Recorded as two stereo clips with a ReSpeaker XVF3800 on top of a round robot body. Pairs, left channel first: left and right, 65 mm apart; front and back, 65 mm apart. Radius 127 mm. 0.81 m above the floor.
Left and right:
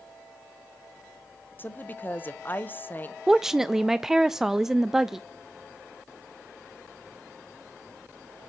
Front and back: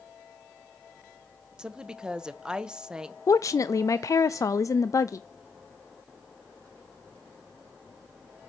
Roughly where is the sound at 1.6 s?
Behind left.